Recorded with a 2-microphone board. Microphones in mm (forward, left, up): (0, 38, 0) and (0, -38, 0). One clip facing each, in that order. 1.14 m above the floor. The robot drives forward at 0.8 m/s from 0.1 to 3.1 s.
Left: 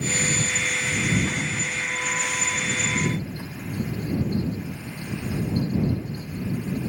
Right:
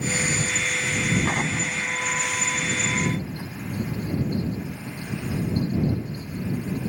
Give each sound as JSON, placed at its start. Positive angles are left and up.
{"t": 1.2, "sound": "an explosion", "side_deg": -70}